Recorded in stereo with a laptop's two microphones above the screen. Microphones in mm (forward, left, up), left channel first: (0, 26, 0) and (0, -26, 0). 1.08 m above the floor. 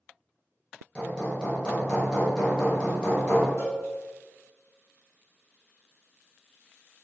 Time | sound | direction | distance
0.9 | hammering | 15° left (ahead or behind) | 0.8 m
3.6 | a cowbell | 65° left (ahead or behind) | 1.1 m